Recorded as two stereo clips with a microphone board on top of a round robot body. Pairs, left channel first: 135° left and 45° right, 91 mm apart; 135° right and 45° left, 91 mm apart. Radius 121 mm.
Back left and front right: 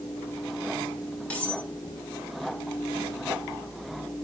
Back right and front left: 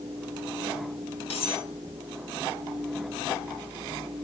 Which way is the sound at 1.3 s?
150° right.